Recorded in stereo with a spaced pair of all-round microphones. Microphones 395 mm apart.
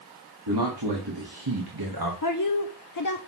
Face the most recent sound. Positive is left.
turn(degrees=50)  # may be behind; listen again after turning